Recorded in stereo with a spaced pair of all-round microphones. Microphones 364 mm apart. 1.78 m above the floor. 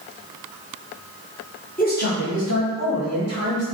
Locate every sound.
1.8 s a man speaking: 25° left (ahead or behind), 1.0 m; by 3.6 s 45° left (ahead or behind), 1.9 m